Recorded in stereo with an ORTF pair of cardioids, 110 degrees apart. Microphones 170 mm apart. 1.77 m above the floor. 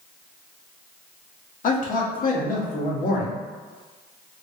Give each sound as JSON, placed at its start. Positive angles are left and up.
{"t": 1.6, "sound": "a man speaking", "azimuth_deg": 55, "distance_m": 1.2}